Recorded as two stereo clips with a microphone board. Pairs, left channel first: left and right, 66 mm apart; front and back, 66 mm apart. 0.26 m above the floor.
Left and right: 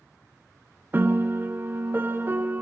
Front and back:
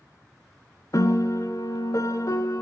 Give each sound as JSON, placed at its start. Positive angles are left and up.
{"t": 0.9, "sound": "a piano", "azimuth_deg": -35, "distance_m": 0.8}